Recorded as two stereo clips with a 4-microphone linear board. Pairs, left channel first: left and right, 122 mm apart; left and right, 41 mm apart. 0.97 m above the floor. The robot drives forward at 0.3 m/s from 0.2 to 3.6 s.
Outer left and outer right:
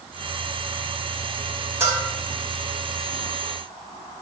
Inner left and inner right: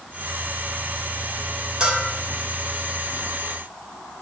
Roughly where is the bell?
Right.